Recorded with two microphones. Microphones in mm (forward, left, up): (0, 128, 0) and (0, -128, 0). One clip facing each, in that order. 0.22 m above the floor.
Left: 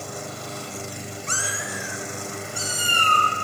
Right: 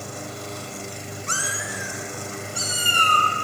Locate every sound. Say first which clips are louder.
1.3 s a cat meowing: even; 70° right (ahead or behind), 0.6 m; by 3.3 s 35° right (ahead or behind), 1.7 m